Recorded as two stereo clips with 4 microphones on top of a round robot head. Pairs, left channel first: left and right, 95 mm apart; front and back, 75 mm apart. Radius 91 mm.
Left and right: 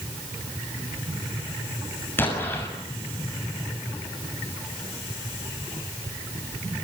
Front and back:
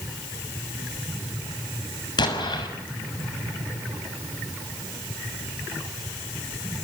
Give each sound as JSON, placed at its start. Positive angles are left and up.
{"t": 2.2, "sound": "an explosion", "azimuth_deg": 20, "distance_m": 6.0}